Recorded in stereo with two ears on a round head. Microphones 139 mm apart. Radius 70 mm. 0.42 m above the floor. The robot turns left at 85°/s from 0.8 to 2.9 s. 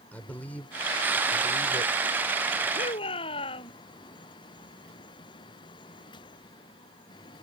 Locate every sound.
0.1 s a man speaking: 165° left; by 1.9 s 65° left
2.8 s a shout: 45° left (ahead or behind); by 3.7 s 35° left (ahead or behind)